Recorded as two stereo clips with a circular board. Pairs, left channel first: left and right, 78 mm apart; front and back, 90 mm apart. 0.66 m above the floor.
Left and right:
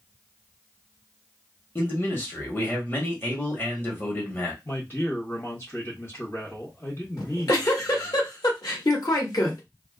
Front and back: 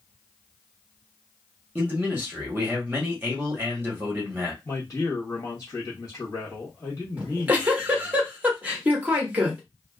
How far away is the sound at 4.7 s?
About 1.3 m.